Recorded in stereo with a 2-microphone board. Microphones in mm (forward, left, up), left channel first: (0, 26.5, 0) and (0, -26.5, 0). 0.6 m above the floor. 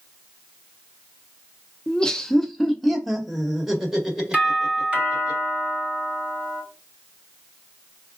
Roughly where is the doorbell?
Right.